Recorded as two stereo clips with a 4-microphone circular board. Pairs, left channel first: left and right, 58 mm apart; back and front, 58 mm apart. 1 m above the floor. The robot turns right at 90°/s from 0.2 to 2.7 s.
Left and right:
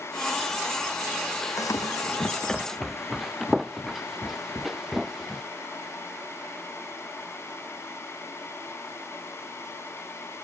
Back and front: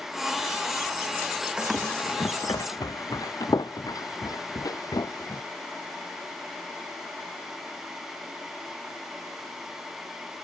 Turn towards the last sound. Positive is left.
turn(degrees=180)